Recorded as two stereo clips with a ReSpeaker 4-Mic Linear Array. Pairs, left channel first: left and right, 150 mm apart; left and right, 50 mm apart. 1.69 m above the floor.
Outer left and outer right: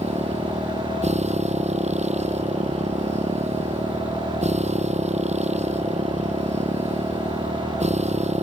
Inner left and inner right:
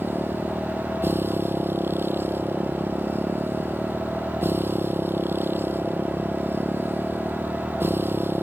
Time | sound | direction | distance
0.0 | a motorcycle | 45° right (ahead or behind) | ?